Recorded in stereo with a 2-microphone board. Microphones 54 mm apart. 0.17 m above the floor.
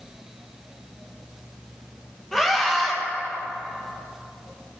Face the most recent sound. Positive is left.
turn(degrees=10)  # may be behind; listen again after turning